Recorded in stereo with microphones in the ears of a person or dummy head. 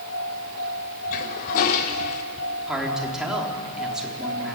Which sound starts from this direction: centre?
A woman speaking, at 2.7 s.